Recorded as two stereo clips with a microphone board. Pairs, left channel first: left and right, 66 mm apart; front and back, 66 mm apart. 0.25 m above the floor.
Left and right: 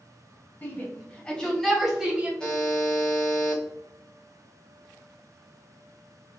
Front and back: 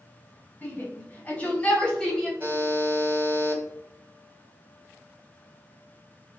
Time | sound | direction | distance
0.6 | a shout | 40° left | 1.4 m
2.4 | a buzzer | 160° left | 1.2 m